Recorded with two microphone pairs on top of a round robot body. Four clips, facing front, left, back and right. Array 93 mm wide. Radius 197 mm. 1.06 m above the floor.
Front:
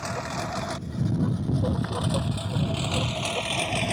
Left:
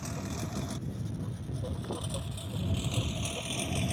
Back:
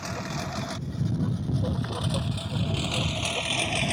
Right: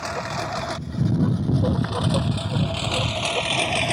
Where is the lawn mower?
70° right; by 3.9 s 80° right.